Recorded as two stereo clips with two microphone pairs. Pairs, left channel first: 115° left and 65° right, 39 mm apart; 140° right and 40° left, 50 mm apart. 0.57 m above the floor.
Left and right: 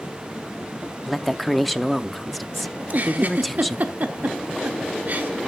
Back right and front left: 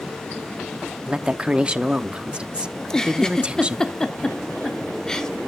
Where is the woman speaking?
30° left, 0.7 m.